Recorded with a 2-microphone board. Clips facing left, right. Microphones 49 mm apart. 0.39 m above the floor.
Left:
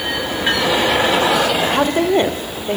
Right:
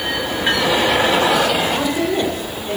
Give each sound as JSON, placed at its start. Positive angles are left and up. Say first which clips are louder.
{"t": 1.6, "sound": "a woman speaking", "louder": "left 3 dB", "side_deg": 45, "distance_m": 1.6}